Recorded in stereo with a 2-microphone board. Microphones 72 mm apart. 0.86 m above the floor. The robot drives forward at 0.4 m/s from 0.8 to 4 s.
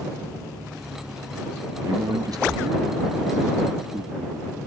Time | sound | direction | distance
1.8 | a man speaking | 60° right (ahead or behind) | ?